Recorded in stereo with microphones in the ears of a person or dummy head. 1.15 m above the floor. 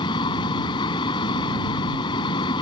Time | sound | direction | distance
0.0 | a fan | 25° left (ahead or behind) | ?